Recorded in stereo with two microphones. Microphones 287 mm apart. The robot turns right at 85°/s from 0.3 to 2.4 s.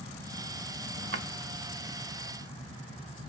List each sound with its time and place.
1.1 s a drawer: 55° right (ahead or behind), 0.7 m; by 1.3 s 45° right (ahead or behind), 0.7 m